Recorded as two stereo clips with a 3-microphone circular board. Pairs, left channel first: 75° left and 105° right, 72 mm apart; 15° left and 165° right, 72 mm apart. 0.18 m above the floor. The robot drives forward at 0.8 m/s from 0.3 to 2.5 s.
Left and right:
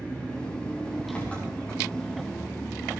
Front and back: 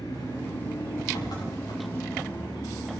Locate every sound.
0.0 s an engine running: 5° left, 8 m